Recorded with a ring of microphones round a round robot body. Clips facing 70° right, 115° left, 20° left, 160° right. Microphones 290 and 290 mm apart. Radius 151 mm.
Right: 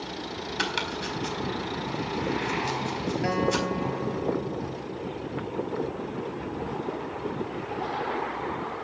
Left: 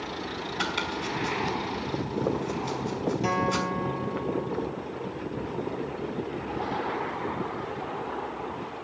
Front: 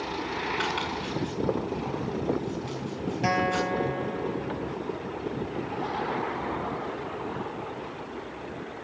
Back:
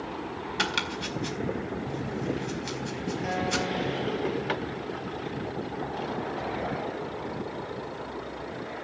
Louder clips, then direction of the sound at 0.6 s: Even, front 1 dB; 130° right.